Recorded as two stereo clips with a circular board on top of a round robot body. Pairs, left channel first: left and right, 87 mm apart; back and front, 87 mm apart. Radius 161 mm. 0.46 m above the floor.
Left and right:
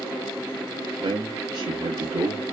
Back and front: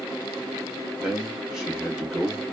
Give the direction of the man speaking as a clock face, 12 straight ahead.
3 o'clock.